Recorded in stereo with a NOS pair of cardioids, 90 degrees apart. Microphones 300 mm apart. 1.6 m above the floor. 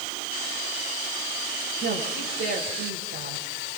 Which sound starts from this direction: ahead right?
A woman speaking, at 1.8 s.